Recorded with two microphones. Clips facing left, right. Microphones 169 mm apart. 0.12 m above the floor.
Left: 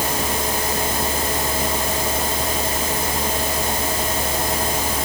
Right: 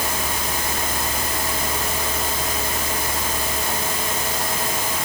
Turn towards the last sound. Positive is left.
No sound to turn to.